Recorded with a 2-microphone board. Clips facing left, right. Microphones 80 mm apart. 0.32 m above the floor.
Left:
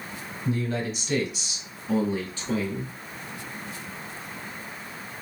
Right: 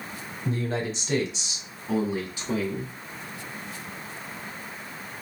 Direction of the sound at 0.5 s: 40° right (ahead or behind).